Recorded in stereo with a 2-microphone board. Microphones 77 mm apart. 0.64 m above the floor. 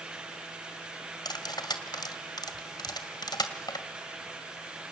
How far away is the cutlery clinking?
About 2.0 m.